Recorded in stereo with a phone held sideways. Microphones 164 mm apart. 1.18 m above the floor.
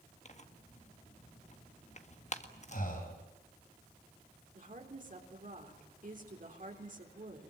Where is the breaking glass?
No breaking glass in this recording.